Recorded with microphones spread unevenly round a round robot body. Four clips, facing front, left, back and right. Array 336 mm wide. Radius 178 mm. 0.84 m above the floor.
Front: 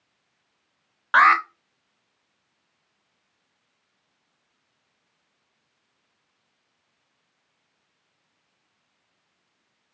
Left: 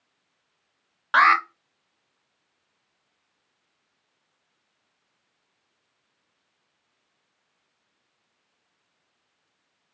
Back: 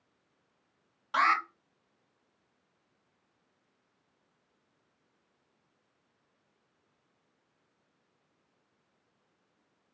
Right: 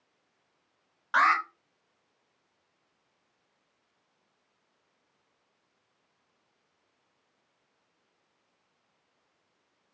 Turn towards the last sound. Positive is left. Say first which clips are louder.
# left 6 dB, front 10 dB
turn(degrees=40)